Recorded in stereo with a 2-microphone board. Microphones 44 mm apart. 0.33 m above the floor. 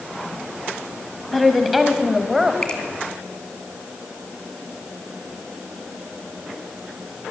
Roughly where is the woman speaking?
Centre.